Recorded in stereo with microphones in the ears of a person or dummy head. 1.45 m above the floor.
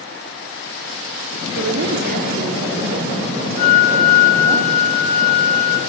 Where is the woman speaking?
65° right (ahead or behind), 0.9 m; by 4.6 s 25° right (ahead or behind), 2.5 m.